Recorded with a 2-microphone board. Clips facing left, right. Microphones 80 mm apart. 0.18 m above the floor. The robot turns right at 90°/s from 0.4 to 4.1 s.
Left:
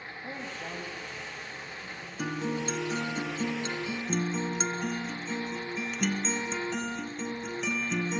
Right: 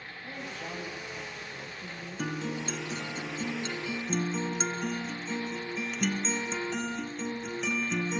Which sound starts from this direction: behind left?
A woman speaking, at 0.2 s.